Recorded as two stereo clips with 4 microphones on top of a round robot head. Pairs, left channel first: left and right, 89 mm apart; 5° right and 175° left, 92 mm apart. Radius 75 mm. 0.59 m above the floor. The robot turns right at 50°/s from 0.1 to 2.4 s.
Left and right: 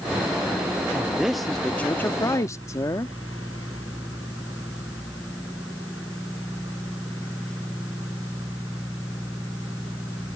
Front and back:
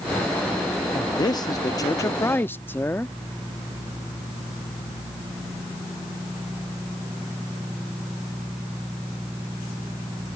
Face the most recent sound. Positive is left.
turn(degrees=55)